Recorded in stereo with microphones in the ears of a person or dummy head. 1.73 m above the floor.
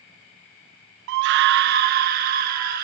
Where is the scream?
60° right (ahead or behind), 0.6 m; by 2.9 s 45° right (ahead or behind), 1.8 m.